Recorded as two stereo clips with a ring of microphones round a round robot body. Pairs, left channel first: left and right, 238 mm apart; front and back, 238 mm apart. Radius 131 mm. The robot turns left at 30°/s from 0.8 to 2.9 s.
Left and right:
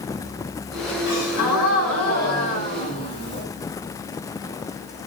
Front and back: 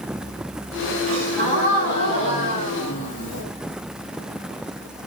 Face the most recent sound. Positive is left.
turn(degrees=25)